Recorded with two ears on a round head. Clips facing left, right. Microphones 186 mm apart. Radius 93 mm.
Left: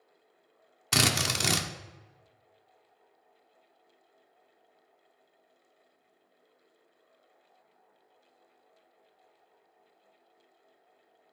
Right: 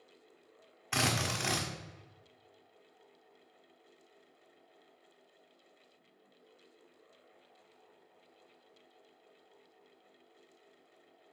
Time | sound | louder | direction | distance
0.9 | a drill | left 4 dB | 50° left (ahead or behind) | 0.9 m